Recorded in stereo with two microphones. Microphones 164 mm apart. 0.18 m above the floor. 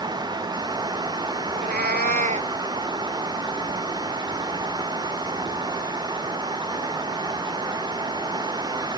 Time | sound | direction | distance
1.5 | a cat meowing | 65° right (ahead or behind) | ?